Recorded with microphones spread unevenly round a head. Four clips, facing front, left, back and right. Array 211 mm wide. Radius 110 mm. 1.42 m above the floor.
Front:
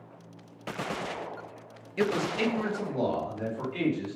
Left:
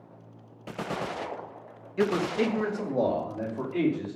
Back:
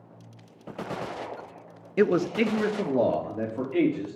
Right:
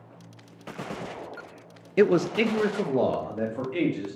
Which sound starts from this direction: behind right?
A man speaking, at 2.0 s.